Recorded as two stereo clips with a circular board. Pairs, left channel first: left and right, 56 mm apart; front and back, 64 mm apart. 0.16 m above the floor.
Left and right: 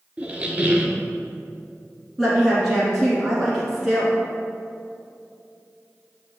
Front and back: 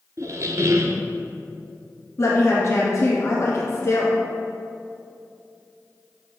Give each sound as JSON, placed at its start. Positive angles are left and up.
{"t": 0.2, "sound": "a squeak", "azimuth_deg": -155, "distance_m": 0.6}
{"t": 2.2, "sound": "a woman speaking", "azimuth_deg": -5, "distance_m": 1.5}